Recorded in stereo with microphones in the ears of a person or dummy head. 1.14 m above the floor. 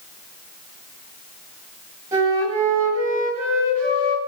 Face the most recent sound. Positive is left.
turn(degrees=-20)  # may be behind; listen again after turning